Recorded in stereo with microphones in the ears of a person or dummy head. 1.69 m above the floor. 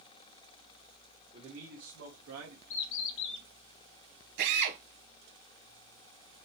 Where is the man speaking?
40° right (ahead or behind), 1.8 m; by 2.6 s 80° right, 1.5 m.